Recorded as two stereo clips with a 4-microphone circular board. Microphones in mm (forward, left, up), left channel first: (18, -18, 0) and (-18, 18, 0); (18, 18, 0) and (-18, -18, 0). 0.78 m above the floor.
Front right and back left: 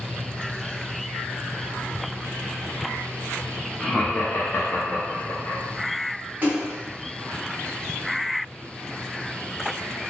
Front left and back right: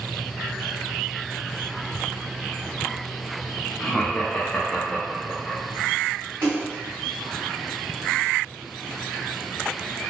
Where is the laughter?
40° left, 0.6 m; by 5.6 s 30° right, 1.4 m.